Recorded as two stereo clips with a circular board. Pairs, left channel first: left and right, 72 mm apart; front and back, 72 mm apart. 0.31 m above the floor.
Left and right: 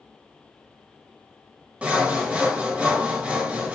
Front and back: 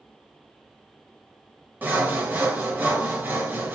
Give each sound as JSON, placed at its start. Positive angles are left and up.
{"t": 1.8, "sound": "sawing", "azimuth_deg": -145, "distance_m": 1.0}